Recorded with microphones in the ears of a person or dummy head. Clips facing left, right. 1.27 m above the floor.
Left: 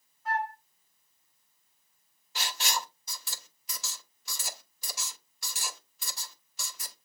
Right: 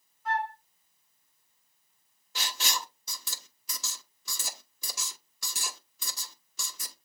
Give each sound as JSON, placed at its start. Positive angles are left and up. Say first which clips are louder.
{"t": 0.2, "sound": "a flute", "louder": "right 1 dB", "side_deg": -55, "distance_m": 3.0}
{"t": 2.4, "sound": "writing", "louder": "left 2 dB", "side_deg": -75, "distance_m": 1.1}